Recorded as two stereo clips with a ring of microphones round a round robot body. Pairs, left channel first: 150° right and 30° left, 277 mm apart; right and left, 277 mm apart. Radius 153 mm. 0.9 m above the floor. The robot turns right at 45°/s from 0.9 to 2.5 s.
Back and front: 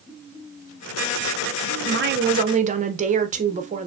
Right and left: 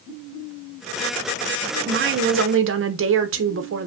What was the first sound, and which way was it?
A woman speaking, 55° left.